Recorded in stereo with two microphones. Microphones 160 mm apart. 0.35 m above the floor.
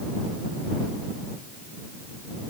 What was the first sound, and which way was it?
Only background noise.